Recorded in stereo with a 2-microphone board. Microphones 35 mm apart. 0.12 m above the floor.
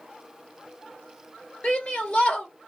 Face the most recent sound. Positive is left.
turn(degrees=30)  # may be behind; listen again after turning